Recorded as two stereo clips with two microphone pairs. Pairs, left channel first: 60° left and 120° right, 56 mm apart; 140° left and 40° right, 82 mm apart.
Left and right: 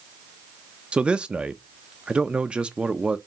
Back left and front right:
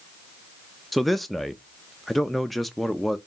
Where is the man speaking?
120° right, 0.5 m.